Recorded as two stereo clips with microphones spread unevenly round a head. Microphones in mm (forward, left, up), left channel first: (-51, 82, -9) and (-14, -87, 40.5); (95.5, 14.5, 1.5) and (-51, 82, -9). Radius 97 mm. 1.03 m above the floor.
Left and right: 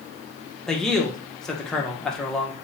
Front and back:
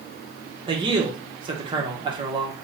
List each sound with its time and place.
0.7 s a man speaking: 155° left, 0.8 m